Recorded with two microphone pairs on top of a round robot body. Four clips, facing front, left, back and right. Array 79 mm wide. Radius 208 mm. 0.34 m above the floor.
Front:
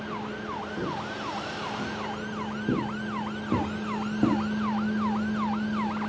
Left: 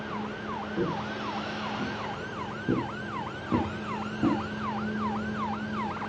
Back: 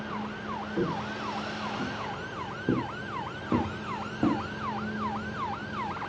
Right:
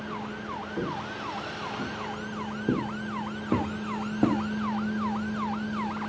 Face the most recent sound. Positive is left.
turn(degrees=-105)